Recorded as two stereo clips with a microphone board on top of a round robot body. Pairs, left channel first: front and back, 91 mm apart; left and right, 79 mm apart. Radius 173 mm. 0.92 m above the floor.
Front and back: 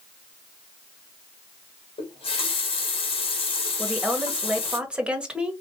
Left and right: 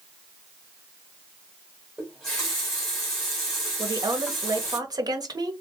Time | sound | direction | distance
2.0 | a running tap | 5° left | 1.2 m
3.8 | a woman speaking | 100° right | 1.3 m